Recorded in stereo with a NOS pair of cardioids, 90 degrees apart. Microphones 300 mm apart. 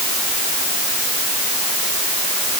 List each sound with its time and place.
Only background noise.